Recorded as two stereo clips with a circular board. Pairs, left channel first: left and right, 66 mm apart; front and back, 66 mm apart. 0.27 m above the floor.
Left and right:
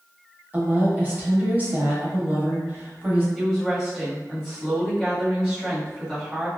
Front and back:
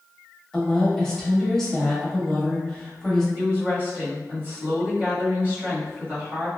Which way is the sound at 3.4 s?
165° right.